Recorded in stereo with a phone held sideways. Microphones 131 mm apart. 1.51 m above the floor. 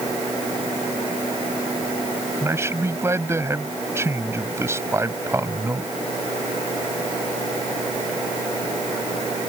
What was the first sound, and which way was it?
A man speaking, 20° right (ahead or behind).